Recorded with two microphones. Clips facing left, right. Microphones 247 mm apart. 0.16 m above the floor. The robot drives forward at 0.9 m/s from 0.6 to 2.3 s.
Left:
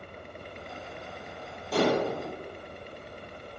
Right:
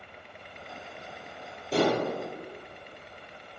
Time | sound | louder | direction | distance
1.7 | dishes clattering | even | 30° right (ahead or behind) | 3 m